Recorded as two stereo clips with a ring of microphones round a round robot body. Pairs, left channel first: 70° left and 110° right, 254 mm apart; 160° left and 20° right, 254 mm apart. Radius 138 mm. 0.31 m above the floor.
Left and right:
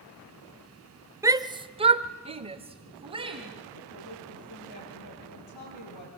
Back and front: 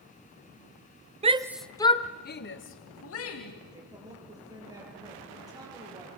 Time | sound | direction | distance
1.2 | a shout | 50° right | 1.1 m
3.7 | a woman speaking | 55° left | 8.5 m